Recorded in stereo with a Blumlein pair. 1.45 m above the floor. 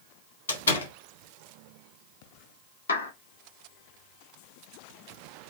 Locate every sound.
0.5 s a door slam: 65° left, 3.5 m
2.9 s a clap: 70° left, 3.5 m